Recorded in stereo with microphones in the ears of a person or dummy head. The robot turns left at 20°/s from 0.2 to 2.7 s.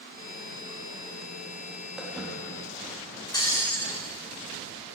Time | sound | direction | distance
2.0 | footsteps | 5° right (ahead or behind) | 4 m
3.3 | breaking glass | 25° left (ahead or behind) | 4 m